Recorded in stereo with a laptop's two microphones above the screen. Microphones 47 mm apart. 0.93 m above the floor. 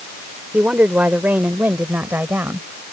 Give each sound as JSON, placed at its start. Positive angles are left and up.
{"t": 0.5, "sound": "a woman speaking", "side_deg": -30}